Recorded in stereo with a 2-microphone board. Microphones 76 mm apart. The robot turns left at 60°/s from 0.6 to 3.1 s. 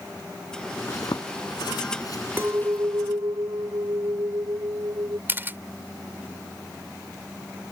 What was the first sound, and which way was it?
A zipper, 45° left (ahead or behind).